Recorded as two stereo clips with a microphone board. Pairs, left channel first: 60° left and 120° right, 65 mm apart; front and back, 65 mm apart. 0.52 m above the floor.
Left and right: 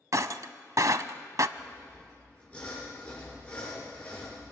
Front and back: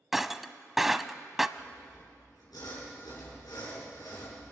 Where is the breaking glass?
95° right, 0.7 m.